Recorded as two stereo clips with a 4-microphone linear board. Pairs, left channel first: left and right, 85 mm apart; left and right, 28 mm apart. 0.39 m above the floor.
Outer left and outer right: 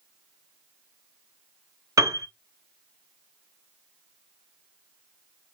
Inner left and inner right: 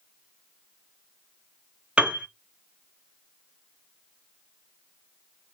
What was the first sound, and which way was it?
A piano, 40° right (ahead or behind).